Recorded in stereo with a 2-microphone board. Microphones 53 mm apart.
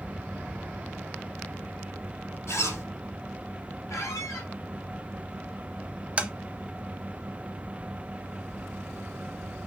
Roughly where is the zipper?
Left.